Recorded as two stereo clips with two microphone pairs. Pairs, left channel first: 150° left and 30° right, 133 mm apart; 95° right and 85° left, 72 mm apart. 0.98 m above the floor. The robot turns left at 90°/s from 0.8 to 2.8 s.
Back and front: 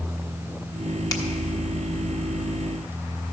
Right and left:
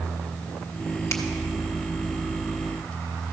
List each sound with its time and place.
1.1 s a finger snap: 145° right, 1.1 m; by 1.2 s 155° right, 1.1 m